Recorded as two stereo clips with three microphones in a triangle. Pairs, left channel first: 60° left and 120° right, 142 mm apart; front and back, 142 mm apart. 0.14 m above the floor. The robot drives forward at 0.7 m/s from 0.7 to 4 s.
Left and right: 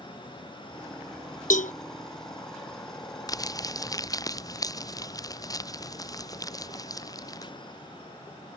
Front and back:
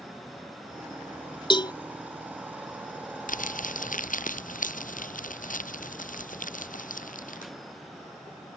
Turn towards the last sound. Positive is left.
turn(degrees=-5)